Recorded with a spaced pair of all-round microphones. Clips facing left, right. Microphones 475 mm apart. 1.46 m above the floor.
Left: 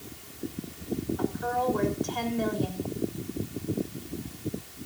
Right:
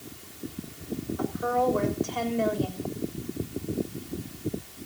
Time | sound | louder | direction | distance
1.2 | a woman speaking | right 2 dB | 10° left (ahead or behind) | 6.5 m